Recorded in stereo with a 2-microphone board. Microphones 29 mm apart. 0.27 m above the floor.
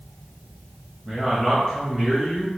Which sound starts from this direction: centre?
A man speaking, at 1.1 s.